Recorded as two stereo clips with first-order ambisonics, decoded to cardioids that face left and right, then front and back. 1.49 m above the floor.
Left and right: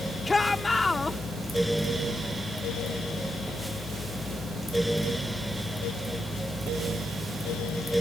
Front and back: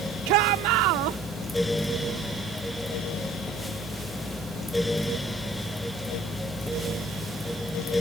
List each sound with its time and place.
0.3 s a shout: 170° left